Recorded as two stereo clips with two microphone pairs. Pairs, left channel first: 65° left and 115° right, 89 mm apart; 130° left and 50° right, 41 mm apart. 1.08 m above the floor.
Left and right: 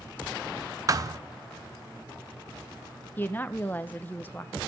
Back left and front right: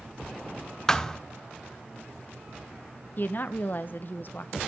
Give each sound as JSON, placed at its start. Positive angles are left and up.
{"t": 0.9, "sound": "a thud", "azimuth_deg": -155, "distance_m": 0.6}
{"t": 3.2, "sound": "a woman speaking", "azimuth_deg": 125, "distance_m": 0.7}